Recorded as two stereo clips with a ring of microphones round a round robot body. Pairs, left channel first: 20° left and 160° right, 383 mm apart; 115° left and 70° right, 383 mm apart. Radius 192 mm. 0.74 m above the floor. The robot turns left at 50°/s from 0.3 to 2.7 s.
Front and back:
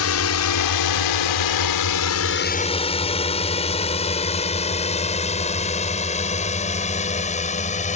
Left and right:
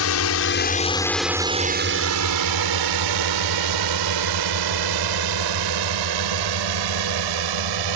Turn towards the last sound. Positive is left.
turn(degrees=-50)